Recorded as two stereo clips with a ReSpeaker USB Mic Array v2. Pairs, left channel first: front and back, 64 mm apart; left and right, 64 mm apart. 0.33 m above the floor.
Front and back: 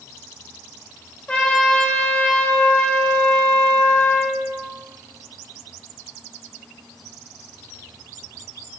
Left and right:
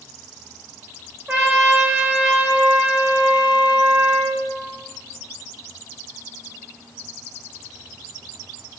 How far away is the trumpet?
About 0.7 m.